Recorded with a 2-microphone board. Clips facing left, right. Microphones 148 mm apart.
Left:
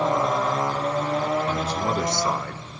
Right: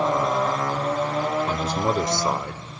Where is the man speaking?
35° right (ahead or behind), 1.3 m; by 2.6 s 15° right (ahead or behind), 1.1 m.